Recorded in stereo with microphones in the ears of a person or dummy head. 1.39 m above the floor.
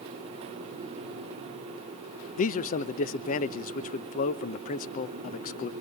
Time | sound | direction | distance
2.4 | a man speaking | 45° left (ahead or behind) | 0.7 m